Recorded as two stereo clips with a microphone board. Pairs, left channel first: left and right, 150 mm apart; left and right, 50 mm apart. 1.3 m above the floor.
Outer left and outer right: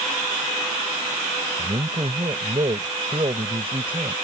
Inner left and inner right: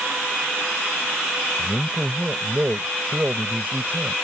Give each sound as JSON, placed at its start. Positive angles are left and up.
{"t": 1.6, "sound": "a man speaking", "side_deg": -40}